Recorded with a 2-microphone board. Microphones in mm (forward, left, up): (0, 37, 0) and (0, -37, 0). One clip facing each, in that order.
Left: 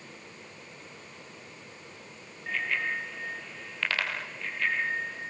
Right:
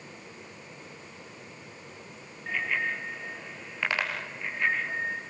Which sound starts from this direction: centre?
A bicycle bell, at 2.5 s.